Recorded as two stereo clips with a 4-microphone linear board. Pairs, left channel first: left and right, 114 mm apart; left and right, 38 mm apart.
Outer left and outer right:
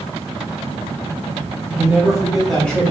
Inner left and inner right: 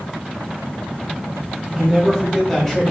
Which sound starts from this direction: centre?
A man speaking, at 1.7 s.